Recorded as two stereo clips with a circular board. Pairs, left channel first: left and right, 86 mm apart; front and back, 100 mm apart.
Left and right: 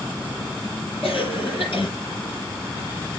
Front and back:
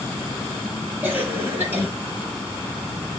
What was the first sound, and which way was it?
A cough, 110° left.